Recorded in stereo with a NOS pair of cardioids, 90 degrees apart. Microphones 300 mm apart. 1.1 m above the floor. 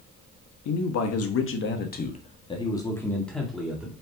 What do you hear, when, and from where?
0.7 s a man speaking: 70° left, 1.4 m; by 3.9 s 5° right, 2.5 m